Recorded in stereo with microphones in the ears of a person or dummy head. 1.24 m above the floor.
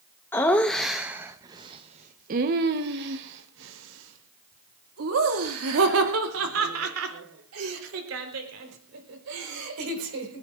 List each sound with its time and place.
0.3 s laughter: 15° left (ahead or behind), 1.1 m; by 10.4 s 80° right, 5 m